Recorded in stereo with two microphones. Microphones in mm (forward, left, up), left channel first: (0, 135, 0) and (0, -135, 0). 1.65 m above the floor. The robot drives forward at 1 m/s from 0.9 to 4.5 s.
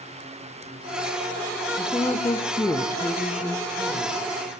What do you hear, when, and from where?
1.8 s a woman speaking: 10° left (ahead or behind), 0.8 m; by 4.2 s 5° left (ahead or behind), 1.9 m